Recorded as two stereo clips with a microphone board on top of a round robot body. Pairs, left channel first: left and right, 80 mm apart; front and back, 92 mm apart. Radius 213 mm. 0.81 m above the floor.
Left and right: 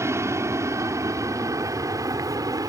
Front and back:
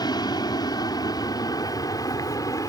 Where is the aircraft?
40° right; by 2.7 s 50° right.